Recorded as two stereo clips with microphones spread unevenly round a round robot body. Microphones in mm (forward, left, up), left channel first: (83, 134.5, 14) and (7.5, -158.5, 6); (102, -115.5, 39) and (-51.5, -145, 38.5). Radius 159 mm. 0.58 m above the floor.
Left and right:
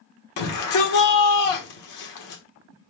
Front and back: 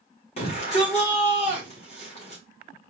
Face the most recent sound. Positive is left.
turn(degrees=65)